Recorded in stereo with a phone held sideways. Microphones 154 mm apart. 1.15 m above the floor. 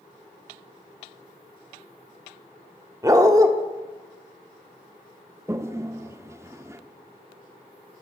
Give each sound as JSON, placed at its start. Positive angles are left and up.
{"t": 3.0, "sound": "a dog barking", "side_deg": -25, "distance_m": 0.9}
{"t": 5.5, "sound": "a toilet flushing", "side_deg": -20, "distance_m": 0.5}